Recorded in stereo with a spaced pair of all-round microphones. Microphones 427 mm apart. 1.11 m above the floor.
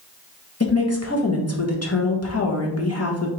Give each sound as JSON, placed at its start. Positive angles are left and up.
{"t": 0.6, "sound": "a woman speaking", "side_deg": 35, "distance_m": 1.0}